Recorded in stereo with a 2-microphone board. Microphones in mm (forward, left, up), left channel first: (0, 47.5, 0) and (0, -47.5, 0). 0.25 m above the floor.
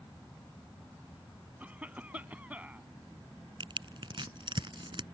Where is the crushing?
60° right (ahead or behind).